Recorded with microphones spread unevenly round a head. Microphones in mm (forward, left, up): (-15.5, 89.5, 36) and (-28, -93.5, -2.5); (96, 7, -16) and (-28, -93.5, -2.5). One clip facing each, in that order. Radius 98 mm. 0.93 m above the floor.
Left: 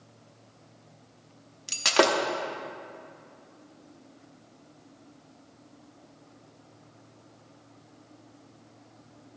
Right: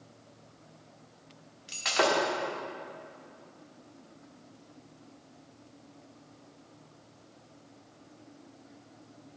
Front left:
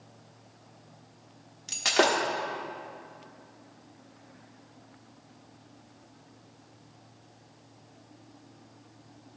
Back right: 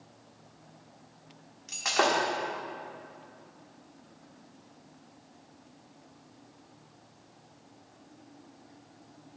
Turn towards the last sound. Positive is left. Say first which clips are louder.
# left 5 dB, front left 2 dB
turn(degrees=105)